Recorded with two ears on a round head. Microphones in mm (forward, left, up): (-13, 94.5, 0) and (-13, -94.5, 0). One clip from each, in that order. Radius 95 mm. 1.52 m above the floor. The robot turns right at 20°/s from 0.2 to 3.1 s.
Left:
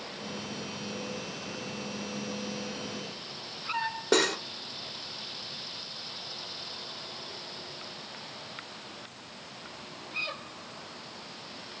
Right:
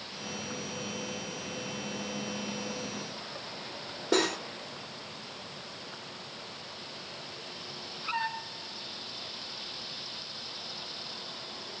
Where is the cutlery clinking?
30° left (ahead or behind), 0.9 m.